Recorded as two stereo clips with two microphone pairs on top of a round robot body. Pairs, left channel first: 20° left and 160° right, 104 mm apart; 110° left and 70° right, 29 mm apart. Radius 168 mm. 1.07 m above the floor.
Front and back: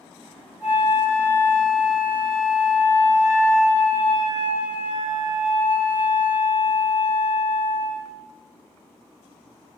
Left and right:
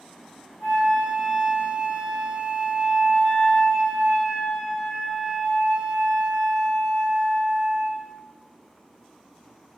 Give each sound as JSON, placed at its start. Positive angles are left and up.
{"t": 0.6, "sound": "a flute", "azimuth_deg": 125, "distance_m": 2.0}